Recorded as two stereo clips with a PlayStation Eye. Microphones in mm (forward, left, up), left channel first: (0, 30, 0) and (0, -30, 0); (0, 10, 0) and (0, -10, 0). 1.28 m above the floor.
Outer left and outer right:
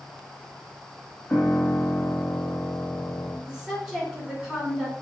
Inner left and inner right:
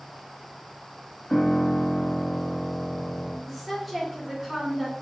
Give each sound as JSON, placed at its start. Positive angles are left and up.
{"t": 1.3, "sound": "a piano", "side_deg": 15, "distance_m": 1.3}
{"t": 3.5, "sound": "a woman speaking", "side_deg": -10, "distance_m": 2.5}